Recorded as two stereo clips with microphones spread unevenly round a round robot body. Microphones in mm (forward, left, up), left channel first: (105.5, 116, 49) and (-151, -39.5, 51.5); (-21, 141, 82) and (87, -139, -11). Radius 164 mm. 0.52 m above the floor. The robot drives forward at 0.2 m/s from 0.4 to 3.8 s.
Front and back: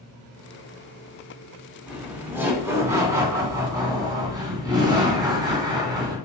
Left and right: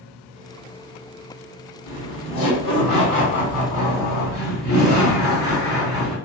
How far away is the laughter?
About 2 m.